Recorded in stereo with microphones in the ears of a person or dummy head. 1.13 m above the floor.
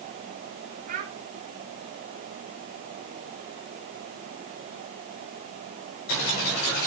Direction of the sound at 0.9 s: 45° right (ahead or behind).